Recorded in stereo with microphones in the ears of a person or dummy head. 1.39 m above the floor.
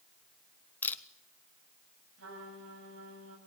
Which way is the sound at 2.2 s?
85° right.